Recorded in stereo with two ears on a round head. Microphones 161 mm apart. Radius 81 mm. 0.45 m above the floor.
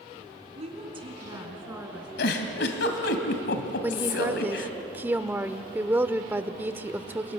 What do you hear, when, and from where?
0.6 s a woman speaking: 40° right (ahead or behind), 4 m; by 2.1 s 10° right (ahead or behind), 4.5 m
2.2 s a giggle: 70° left (ahead or behind), 2.5 m
3.8 s a woman speaking: 10° right (ahead or behind), 1.0 m